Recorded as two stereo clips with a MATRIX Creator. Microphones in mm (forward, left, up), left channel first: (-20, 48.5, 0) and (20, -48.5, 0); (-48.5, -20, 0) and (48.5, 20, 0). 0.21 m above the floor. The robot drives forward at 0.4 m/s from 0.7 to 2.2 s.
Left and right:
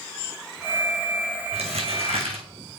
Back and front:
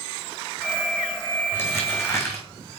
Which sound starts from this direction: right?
Crumpling, at 1.5 s.